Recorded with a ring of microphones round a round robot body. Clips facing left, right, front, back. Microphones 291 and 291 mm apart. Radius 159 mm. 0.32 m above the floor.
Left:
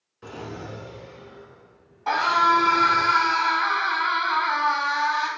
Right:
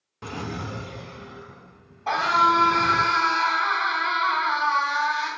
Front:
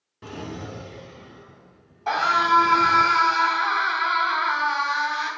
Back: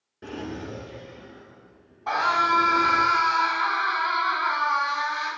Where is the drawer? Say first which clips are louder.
Right 3 dB, back 1 dB; 75° right, 1.0 m.